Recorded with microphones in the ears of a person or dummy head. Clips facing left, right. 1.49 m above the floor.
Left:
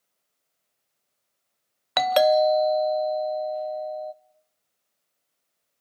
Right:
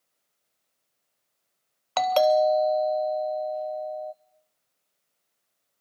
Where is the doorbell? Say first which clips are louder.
Left 1 dB; 25° left (ahead or behind), 0.5 m.